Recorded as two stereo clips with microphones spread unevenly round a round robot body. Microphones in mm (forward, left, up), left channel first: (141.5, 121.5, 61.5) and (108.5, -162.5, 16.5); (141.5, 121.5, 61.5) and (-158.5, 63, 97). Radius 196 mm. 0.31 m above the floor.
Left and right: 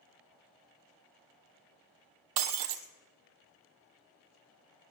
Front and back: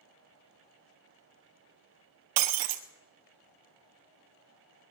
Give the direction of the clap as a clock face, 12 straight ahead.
No clap in this recording.